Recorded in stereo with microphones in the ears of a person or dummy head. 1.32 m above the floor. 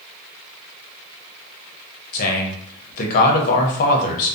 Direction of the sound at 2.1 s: 45° left (ahead or behind).